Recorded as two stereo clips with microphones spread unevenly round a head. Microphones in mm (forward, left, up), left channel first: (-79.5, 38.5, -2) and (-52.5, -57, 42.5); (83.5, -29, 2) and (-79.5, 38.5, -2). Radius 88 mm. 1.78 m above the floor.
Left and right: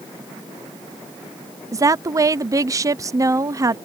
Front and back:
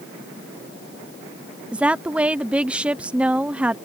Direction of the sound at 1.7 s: 120° right.